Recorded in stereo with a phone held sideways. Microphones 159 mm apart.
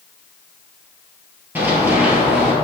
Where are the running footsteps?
10° right (ahead or behind), 2 m.